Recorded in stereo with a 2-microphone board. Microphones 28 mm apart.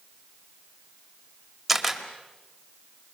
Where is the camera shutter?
5° right (ahead or behind), 2 m.